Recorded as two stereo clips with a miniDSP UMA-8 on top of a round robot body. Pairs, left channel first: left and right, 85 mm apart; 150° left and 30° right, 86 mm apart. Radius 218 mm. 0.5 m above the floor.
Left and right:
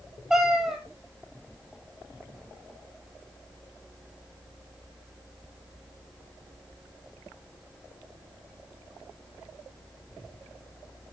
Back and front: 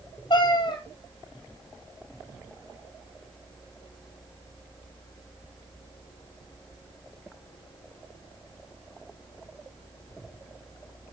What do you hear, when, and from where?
0.3 s a cat meowing: straight behind, 3 m